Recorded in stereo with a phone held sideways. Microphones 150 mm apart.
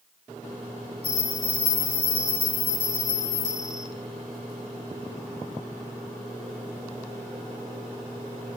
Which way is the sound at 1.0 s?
25° left (ahead or behind).